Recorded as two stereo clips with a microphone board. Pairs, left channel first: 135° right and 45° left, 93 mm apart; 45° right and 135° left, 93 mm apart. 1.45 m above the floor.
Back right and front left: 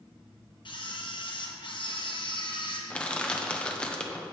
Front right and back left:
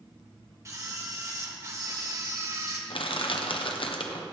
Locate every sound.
0.7 s a camera shutter: 170° right, 1.2 m
2.9 s crushing: 60° right, 0.9 m